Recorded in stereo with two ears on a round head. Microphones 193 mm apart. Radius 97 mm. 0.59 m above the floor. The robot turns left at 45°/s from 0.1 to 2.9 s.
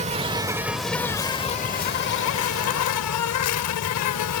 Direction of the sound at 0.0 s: 145° right.